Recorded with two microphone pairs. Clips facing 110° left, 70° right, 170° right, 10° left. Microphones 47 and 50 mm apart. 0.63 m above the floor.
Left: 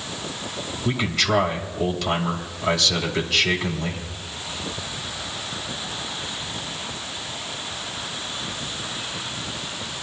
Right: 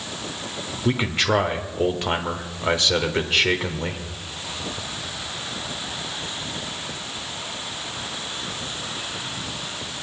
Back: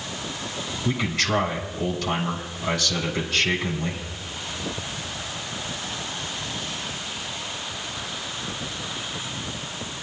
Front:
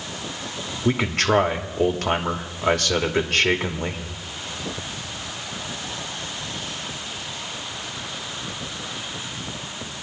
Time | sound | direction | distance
0.8 | a man speaking | 10° right | 1.8 m